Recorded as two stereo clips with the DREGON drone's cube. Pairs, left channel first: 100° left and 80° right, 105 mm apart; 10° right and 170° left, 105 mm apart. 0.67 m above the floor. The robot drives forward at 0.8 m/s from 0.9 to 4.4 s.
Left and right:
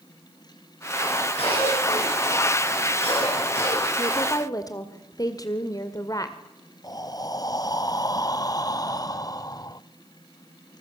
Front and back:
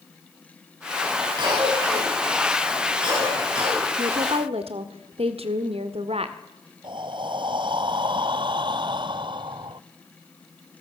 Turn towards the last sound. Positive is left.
turn(degrees=145)